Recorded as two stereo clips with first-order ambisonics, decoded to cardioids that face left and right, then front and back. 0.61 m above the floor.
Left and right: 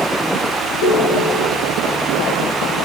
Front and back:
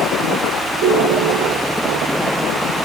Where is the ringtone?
140° left, 9 m.